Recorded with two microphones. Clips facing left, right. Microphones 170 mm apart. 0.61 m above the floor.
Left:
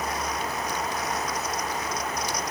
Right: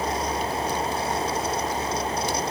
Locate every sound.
Only background noise.